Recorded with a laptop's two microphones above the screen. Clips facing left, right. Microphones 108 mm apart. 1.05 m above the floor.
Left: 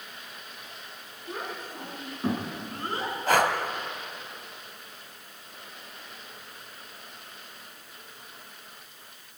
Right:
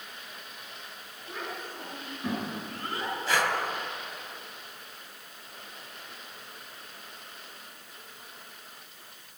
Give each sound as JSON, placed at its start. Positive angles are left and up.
{"t": 1.3, "sound": "a child speaking", "side_deg": 40, "distance_m": 9.5}
{"t": 3.3, "sound": "breathing", "side_deg": 50, "distance_m": 2.0}